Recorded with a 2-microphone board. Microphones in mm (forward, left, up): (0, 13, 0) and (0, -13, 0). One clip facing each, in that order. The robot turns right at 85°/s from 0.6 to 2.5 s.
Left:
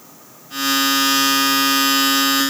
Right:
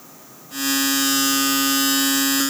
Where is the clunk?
I don't hear a clunk.